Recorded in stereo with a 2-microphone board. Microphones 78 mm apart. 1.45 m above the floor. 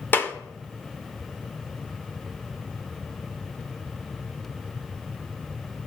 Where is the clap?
25° left (ahead or behind), 0.6 m.